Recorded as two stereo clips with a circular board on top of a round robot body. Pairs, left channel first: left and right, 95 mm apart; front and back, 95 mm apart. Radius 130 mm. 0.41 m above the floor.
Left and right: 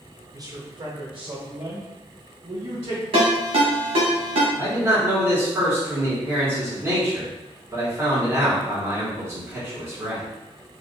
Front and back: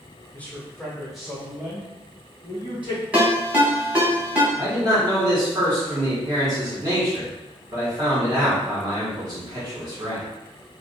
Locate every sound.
0.3 s a man speaking: 65° right, 1.0 m; by 3.0 s 105° right, 3 m
3.1 s a ringtone: 105° right, 1.8 m
4.6 s a man speaking: 135° right, 2.0 m